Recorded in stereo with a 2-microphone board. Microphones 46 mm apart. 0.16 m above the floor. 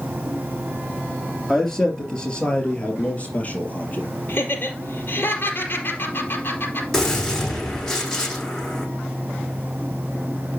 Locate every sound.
1.5 s a man speaking: 5° left (ahead or behind), 3 m; by 4.1 s 35° left (ahead or behind), 4 m
4.3 s laughter: 40° left (ahead or behind), 4.5 m
6.9 s a gunshot: 10° left (ahead or behind), 7 m